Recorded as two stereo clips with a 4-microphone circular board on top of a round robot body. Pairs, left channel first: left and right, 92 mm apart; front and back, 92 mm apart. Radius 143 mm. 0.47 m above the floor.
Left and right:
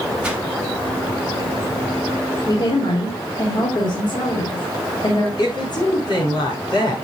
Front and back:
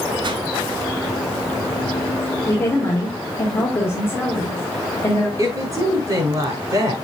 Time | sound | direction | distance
0.2 | a whoosh | 165° right | 2.0 m
2.5 | a woman speaking | 60° left | 2.5 m
5.4 | a woman speaking | 125° left | 5.5 m